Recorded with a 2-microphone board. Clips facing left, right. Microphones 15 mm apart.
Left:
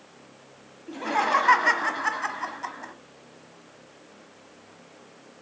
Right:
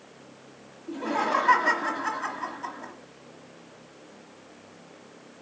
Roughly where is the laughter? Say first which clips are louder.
Left 3 dB; left.